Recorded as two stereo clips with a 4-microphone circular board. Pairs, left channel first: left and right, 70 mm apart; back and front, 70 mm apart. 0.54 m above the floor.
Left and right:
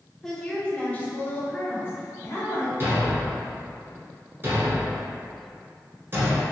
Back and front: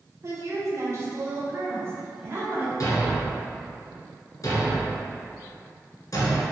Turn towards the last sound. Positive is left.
turn(degrees=-145)